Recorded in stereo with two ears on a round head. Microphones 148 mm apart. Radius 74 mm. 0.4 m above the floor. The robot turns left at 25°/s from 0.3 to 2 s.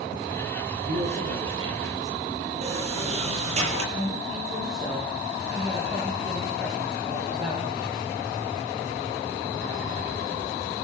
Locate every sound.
0.8 s a man speaking: 50° right (ahead or behind), 8 m; by 2.2 s 20° right (ahead or behind), 8 m
2.6 s a sliding door: 40° right (ahead or behind), 7.5 m
3.9 s a man speaking: 25° right (ahead or behind), 10 m